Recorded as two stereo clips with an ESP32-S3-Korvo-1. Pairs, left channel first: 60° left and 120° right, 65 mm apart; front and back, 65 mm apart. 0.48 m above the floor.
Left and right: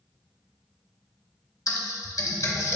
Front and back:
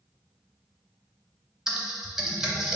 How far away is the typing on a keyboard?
About 0.5 m.